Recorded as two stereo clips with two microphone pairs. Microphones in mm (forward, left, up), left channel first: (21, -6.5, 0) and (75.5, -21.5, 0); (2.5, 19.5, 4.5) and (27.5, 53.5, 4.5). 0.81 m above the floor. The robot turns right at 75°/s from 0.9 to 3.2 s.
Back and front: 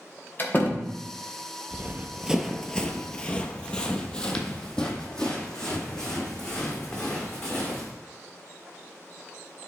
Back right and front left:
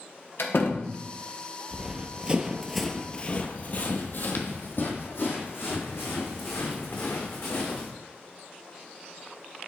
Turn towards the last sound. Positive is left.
turn(degrees=-115)